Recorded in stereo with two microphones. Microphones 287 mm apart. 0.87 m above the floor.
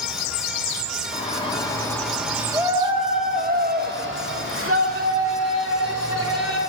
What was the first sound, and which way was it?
A shout, 25° left (ahead or behind).